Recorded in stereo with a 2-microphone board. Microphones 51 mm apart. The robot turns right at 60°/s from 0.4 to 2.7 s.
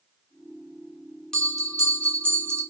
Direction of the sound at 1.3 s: 165° left.